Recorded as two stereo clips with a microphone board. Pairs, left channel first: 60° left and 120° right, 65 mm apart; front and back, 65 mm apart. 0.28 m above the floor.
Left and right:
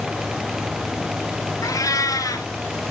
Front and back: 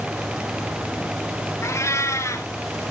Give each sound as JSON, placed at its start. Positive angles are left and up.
{"t": 1.6, "sound": "a cat meowing", "azimuth_deg": 40, "distance_m": 1.6}